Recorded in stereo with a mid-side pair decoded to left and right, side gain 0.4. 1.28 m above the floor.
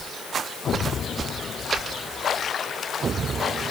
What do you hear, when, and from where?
Only background noise.